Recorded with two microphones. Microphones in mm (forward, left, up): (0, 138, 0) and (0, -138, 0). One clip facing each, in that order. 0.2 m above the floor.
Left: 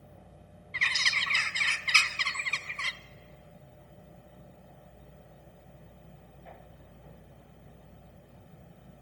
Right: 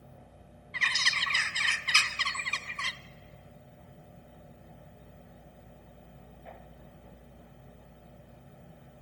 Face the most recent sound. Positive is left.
turn(degrees=-50)  # may be behind; listen again after turning